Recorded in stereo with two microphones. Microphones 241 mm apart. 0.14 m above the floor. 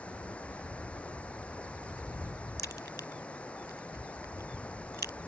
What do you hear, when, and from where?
0.0 s running water: 5° left (ahead or behind)
2.6 s a crack: 45° right (ahead or behind)